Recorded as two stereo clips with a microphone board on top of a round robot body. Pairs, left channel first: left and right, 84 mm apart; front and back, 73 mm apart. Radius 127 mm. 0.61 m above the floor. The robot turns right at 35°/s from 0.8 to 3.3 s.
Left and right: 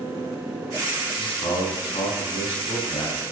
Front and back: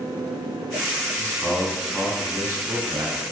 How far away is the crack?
No crack in this recording.